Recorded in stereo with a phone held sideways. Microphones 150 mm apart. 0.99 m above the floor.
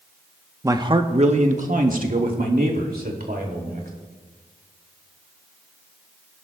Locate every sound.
0.6 s a man speaking: 20° right (ahead or behind), 0.8 m; by 3.9 s 75° right (ahead or behind), 3 m